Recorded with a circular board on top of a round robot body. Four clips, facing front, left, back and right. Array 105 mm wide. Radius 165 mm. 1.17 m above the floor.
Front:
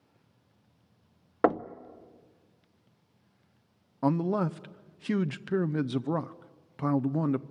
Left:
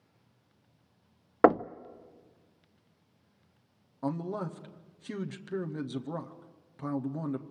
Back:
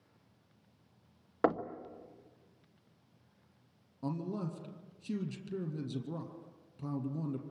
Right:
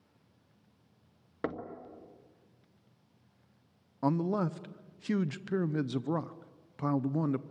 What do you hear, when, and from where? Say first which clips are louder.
1.4 s knocking: left 15 dB, front 5 dB; 75° left, 0.5 m
4.0 s a man speaking: right 4 dB, front 11 dB; 20° right, 0.9 m